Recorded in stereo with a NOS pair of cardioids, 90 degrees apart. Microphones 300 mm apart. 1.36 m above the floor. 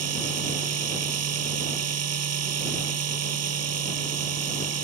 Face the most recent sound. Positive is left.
turn(degrees=-55)